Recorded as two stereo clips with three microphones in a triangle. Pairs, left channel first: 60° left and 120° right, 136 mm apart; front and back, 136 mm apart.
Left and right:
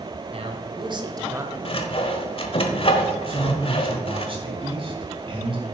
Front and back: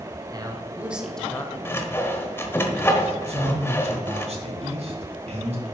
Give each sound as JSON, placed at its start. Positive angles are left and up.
{"t": 0.3, "sound": "a man speaking", "azimuth_deg": -130, "distance_m": 1.5}
{"t": 1.6, "sound": "sawing", "azimuth_deg": 65, "distance_m": 1.1}
{"t": 3.3, "sound": "a man speaking", "azimuth_deg": -160, "distance_m": 2.5}